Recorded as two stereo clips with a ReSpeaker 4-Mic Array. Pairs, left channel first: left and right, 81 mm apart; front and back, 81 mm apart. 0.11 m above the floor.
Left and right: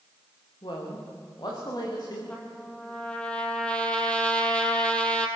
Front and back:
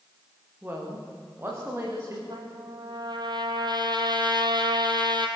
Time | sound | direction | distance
0.6 | a woman speaking | 115° left | 9 m
2.3 | a trumpet | 165° left | 2.5 m